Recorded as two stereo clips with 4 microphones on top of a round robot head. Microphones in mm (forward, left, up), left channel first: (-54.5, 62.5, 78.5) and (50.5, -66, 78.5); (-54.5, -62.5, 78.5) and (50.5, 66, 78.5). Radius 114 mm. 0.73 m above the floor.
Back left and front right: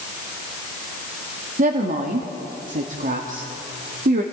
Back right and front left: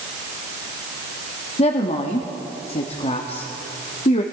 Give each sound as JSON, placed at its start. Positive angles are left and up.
{"t": 1.6, "sound": "a woman speaking", "azimuth_deg": -85, "distance_m": 1.4}